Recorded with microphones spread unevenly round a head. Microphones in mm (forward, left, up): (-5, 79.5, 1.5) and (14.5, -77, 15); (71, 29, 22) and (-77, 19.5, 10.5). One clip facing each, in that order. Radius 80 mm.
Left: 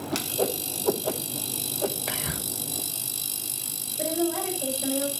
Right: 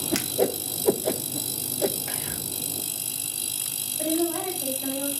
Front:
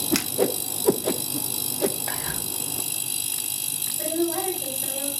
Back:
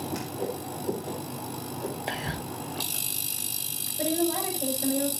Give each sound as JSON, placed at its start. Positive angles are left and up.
{"t": 0.1, "sound": "a whoosh", "azimuth_deg": -10, "distance_m": 0.9}
{"t": 2.1, "sound": "whispering", "azimuth_deg": 125, "distance_m": 1.0}
{"t": 4.0, "sound": "a woman speaking", "azimuth_deg": 140, "distance_m": 7.5}